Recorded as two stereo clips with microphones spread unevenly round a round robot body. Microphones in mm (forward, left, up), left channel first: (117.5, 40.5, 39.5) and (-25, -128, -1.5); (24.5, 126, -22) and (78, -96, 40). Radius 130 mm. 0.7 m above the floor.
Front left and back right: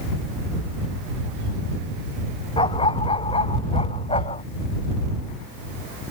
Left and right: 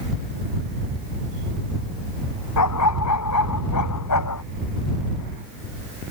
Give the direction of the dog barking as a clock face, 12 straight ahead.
8 o'clock.